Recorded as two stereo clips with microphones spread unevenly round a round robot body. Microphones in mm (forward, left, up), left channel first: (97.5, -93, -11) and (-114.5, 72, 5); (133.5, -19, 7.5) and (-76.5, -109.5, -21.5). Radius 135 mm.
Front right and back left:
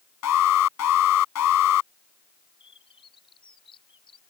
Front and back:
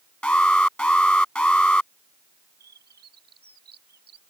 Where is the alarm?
60° right.